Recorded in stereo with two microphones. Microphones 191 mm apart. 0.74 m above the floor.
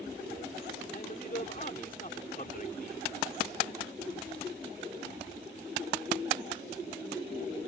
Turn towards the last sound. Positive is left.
turn(degrees=45)  # may be behind; listen again after turning